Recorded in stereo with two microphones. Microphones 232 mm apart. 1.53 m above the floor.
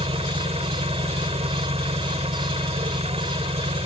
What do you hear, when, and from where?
0.0 s an engine running: 30° right (ahead or behind)